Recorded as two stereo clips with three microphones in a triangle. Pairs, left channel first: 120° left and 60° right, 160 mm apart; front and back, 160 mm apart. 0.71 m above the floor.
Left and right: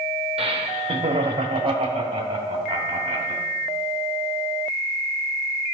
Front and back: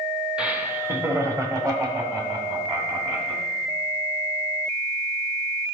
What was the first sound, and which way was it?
Laughter, 100° right.